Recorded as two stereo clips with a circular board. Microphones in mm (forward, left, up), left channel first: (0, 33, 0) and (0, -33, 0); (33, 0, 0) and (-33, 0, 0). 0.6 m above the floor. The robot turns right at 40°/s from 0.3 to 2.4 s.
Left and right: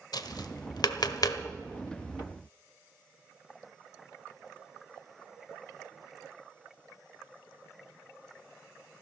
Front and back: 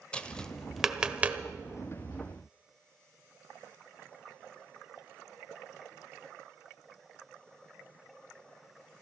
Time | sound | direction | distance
0.1 | tapping | 75° left | 1.0 m